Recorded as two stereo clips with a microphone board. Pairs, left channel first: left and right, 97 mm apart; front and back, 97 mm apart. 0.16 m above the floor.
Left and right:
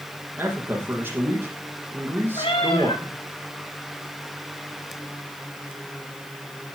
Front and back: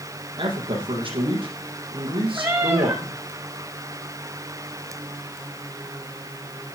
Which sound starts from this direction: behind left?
A cat meowing, at 2.4 s.